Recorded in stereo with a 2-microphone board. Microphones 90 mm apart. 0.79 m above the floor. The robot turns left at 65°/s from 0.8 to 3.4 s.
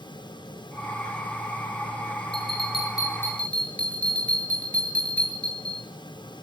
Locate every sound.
2.3 s a bell: 85° left, 9 m; by 5.8 s 15° left, 9 m